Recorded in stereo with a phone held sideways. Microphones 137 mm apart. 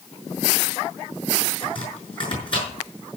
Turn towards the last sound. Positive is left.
turn(degrees=40)  # may be behind; listen again after turning